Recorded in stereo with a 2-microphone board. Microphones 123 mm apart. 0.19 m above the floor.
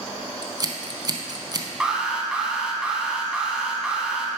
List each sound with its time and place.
0.4 s scissors: 35° right (ahead or behind), 0.6 m
1.8 s an alarm: 5° right (ahead or behind), 0.8 m